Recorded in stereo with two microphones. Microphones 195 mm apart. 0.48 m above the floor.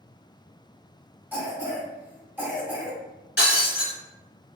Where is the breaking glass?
65° left (ahead or behind), 1.6 m.